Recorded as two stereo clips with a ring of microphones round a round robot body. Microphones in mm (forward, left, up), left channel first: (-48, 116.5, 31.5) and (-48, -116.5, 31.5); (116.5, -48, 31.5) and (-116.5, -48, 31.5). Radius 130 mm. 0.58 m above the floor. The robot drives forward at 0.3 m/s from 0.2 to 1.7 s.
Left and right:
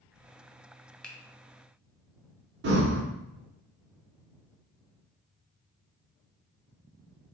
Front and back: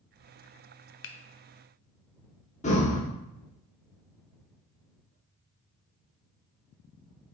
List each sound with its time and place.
1.0 s a finger snap: 5° left, 0.5 m
2.6 s breathing: 55° right, 0.9 m